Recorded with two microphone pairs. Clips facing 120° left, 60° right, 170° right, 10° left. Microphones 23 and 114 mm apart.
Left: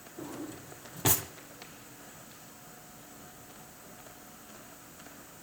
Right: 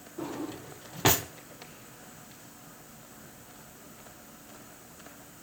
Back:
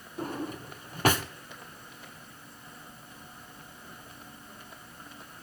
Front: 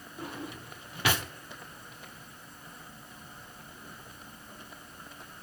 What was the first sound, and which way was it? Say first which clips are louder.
A drawer: right 5 dB, back 6 dB; 125° right.